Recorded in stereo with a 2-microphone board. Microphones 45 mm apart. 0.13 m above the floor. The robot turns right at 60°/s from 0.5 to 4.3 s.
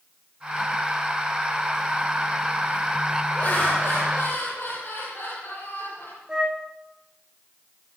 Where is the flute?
20° right (ahead or behind), 2 m.